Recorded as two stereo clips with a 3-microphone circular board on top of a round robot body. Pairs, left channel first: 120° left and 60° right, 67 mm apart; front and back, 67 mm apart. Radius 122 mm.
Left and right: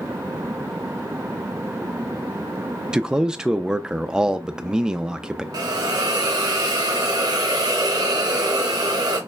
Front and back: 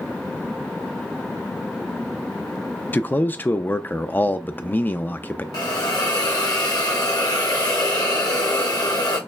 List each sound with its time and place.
2.9 s a man speaking: 5° left, 0.5 m
5.5 s a hiss: 35° right, 0.9 m